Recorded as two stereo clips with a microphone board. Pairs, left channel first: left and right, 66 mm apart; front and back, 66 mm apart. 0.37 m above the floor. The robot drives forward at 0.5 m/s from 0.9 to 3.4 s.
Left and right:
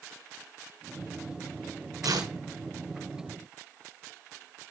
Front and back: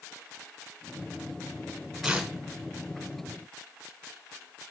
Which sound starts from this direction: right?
Tearing paper, at 2.0 s.